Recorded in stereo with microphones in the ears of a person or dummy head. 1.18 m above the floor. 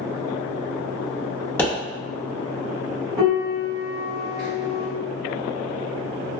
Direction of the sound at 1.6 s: 10° left (ahead or behind).